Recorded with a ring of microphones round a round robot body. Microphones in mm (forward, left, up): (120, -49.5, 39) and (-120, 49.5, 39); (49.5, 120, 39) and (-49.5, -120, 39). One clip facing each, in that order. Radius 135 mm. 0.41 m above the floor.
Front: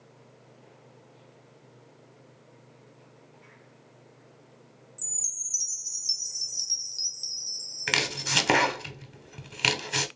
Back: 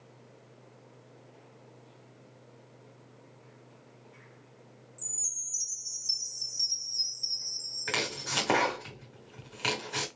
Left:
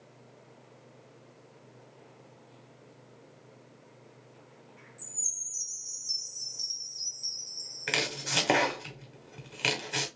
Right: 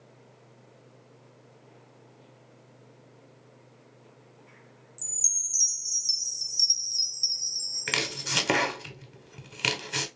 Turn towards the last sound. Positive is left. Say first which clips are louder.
# front 2 dB, even
turn(degrees=-45)